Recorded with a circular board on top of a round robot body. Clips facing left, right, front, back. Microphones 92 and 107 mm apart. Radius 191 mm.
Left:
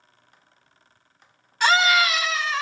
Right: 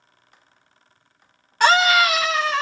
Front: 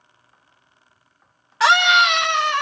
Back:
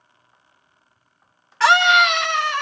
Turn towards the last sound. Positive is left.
turn(degrees=-75)